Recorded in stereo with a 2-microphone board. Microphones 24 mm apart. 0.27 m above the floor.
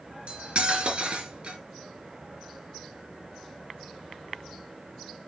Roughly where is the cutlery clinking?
Right.